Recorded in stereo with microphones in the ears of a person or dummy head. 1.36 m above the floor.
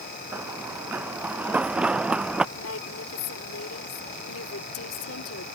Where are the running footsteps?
15° right (ahead or behind); by 2.5 s 5° right (ahead or behind).